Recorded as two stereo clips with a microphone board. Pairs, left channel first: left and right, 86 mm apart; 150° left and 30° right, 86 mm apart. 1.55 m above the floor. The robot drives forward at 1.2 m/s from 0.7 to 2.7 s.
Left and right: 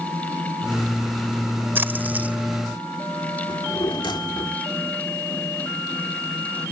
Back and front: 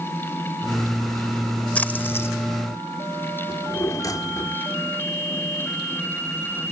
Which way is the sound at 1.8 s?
145° right.